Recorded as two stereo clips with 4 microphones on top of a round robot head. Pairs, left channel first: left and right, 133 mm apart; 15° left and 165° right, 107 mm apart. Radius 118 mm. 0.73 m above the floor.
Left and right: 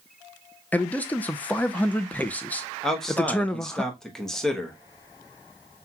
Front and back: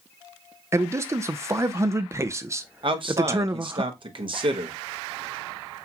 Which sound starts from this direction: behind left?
A man speaking, at 0.7 s.